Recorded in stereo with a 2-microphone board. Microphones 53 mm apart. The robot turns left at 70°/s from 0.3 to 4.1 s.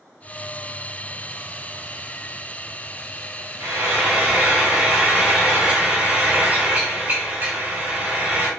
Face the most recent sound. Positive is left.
turn(degrees=-145)